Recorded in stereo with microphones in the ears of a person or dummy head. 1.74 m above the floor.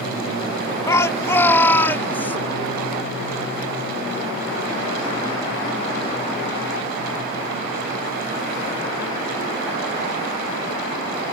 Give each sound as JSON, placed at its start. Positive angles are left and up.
{"t": 0.9, "sound": "a shout", "side_deg": 15}